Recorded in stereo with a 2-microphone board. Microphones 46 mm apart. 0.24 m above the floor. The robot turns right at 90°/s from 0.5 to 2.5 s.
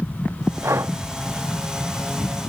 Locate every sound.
0.6 s breathing: 85° right; by 0.9 s 55° right (ahead or behind)